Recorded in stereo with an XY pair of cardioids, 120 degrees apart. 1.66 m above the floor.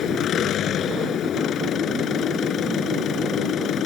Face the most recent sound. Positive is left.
turn(degrees=55)